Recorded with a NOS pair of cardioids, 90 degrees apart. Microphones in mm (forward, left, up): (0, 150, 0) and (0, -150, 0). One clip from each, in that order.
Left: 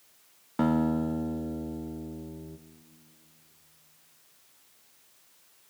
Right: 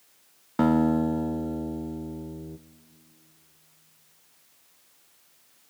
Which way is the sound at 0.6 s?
15° right.